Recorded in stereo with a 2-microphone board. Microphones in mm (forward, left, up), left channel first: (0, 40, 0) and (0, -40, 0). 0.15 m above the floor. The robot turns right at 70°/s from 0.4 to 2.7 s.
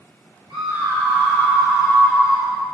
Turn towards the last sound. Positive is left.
turn(degrees=70)